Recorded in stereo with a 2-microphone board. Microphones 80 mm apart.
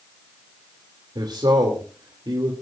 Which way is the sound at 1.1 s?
65° right (ahead or behind).